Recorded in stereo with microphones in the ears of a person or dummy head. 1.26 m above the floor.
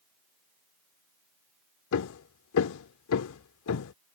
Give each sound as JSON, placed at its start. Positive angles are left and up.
{"t": 1.9, "sound": "hammering", "side_deg": 75}